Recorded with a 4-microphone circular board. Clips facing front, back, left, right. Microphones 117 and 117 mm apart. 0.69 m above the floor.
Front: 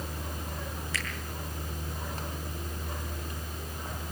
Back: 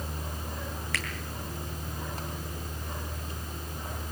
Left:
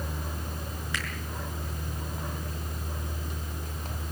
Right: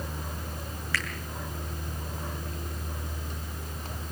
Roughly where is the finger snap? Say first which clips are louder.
Back 2 dB, right 3 dB; behind.